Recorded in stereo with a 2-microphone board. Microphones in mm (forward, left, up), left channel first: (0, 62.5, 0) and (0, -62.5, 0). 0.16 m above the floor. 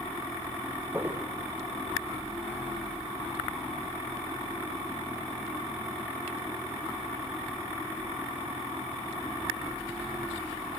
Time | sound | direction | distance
0.9 | footsteps | 20° right (ahead or behind) | 3 m